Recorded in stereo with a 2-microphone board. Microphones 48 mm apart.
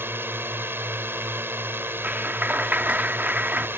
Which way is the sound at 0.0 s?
60° right (ahead or behind).